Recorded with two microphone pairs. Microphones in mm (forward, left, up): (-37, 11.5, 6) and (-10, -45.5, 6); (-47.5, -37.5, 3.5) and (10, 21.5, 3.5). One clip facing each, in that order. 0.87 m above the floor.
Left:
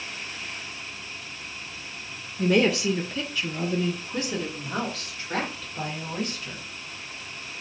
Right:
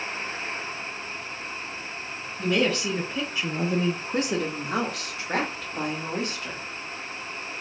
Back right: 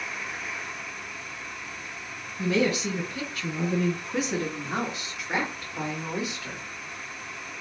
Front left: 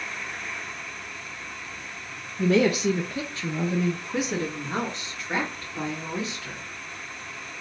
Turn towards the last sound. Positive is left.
turn(degrees=-65)